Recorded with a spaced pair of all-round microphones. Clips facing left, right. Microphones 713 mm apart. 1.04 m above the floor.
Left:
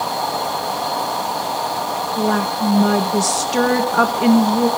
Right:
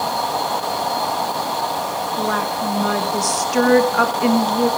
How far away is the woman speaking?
About 1.3 m.